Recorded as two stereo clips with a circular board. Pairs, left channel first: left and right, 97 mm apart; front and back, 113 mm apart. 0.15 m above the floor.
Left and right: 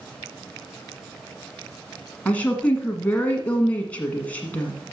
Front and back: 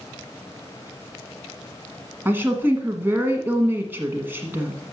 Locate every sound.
2.2 s a woman speaking: 140° left, 1.5 m